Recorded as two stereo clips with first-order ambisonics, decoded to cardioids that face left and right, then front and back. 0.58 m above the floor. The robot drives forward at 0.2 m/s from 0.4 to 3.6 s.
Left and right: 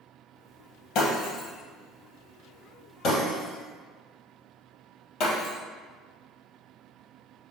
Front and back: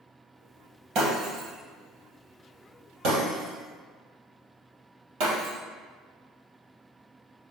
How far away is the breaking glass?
About 2.5 m.